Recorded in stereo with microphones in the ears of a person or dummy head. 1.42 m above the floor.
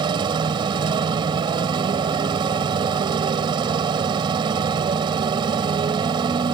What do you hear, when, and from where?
0.0 s a motorcycle: 25° right (ahead or behind)